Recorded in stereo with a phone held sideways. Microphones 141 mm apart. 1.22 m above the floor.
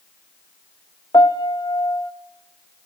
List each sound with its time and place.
1.1 s a piano: 30° left (ahead or behind), 0.8 m